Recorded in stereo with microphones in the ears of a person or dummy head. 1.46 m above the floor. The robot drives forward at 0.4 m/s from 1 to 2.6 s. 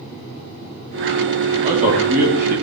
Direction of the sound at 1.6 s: 45° right (ahead or behind).